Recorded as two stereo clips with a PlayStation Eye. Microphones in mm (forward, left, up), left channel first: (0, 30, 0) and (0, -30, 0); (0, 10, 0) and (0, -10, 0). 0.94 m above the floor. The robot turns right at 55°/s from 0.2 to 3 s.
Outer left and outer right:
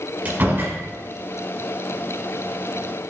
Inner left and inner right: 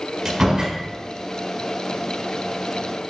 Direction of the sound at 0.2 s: 25° right (ahead or behind).